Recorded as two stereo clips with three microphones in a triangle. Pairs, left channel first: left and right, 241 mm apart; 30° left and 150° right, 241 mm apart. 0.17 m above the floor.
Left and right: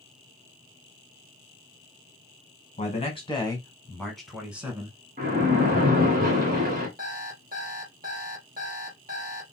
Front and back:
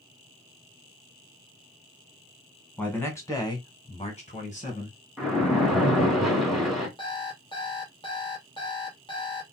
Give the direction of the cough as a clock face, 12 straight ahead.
I don't hear a cough.